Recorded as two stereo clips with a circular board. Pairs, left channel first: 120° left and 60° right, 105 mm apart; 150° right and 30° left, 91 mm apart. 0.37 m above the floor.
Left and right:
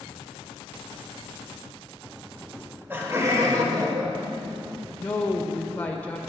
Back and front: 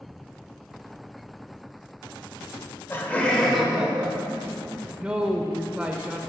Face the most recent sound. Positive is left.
turn(degrees=85)